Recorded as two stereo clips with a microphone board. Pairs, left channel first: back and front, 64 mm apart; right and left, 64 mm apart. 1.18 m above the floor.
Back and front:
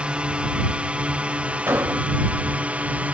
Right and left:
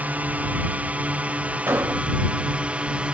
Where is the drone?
55° left; by 3.1 s 40° left.